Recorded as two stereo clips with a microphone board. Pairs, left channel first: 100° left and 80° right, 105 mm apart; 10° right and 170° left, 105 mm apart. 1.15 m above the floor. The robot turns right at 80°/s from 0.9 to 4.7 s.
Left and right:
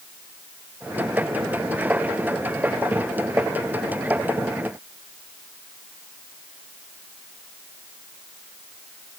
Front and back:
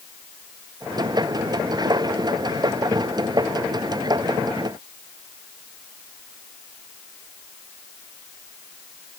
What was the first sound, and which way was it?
Only background noise.